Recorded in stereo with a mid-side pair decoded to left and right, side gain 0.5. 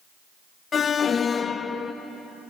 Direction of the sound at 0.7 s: 40° left.